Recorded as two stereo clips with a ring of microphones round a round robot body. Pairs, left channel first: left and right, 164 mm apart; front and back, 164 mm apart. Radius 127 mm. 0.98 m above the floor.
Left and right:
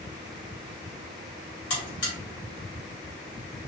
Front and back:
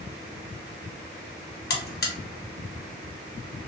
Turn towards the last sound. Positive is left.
turn(degrees=30)